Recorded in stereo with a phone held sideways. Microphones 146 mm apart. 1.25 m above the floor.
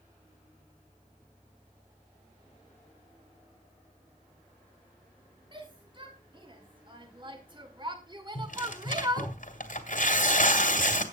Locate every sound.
5.5 s a shout: 35° right (ahead or behind), 3.5 m; by 9.3 s 25° right (ahead or behind), 0.9 m
8.3 s tearing paper: 70° left (ahead or behind), 2.5 m